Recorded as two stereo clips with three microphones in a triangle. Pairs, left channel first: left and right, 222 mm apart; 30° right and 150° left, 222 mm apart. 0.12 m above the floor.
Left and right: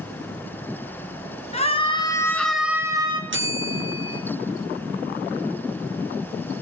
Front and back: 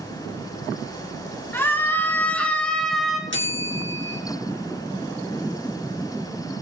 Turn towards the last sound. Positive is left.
turn(degrees=-60)